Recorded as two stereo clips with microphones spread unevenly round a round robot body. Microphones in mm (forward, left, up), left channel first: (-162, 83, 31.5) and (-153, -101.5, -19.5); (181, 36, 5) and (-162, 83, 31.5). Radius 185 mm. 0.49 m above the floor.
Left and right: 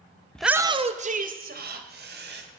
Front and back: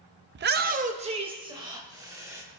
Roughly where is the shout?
Behind.